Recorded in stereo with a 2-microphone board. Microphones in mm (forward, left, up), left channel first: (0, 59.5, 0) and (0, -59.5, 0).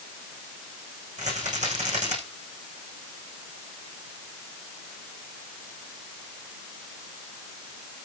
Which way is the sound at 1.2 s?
80° right.